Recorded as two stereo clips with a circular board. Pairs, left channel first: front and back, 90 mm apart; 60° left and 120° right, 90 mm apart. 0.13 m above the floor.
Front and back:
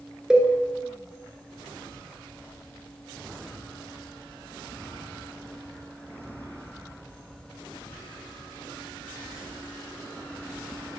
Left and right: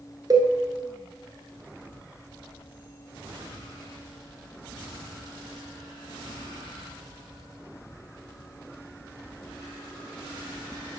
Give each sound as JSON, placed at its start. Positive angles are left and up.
{"t": 0.3, "sound": "a cowbell", "azimuth_deg": -100, "distance_m": 1.0}